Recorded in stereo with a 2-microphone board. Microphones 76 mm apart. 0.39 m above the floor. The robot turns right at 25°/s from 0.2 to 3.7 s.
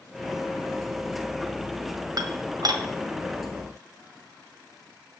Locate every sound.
2.2 s dishes clattering: 60° right (ahead or behind), 1.5 m